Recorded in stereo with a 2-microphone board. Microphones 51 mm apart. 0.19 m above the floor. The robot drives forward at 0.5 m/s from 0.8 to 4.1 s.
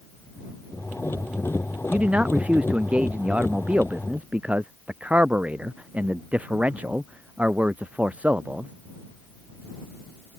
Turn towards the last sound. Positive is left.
turn(degrees=-25)  # may be behind; listen again after turning